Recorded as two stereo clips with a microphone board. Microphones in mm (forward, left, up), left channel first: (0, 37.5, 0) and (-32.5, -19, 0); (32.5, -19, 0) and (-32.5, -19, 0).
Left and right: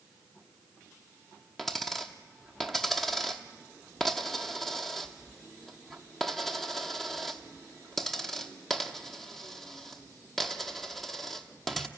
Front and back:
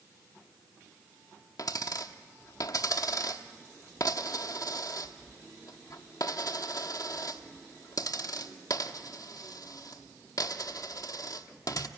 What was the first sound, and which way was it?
A dropped coin, 25° right.